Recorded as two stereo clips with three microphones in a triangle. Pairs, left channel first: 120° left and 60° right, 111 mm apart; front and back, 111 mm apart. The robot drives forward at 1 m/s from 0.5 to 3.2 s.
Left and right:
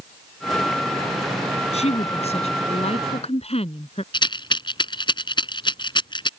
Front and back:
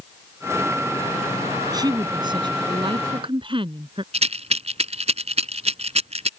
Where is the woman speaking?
130° left; by 4.0 s 145° left.